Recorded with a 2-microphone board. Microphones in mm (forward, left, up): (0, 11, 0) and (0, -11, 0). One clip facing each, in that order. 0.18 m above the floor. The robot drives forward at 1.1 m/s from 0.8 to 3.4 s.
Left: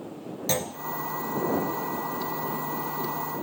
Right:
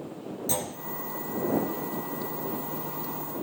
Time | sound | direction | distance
0.5 | a clunk | 45° left (ahead or behind) | 1.1 m